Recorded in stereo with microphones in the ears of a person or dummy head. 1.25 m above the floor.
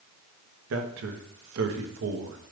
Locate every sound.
0.7 s a man speaking: 80° right, 1.0 m